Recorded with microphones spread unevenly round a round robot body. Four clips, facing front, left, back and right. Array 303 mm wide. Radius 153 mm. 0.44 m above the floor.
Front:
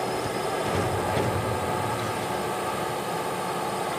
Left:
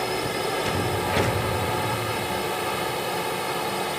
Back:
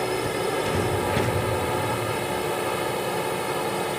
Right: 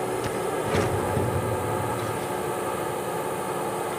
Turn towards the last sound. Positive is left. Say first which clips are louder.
# even, back 2 dB
turn(degrees=-160)